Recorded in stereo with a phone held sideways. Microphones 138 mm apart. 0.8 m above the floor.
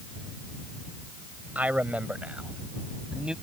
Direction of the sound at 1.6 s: 10° right (ahead or behind).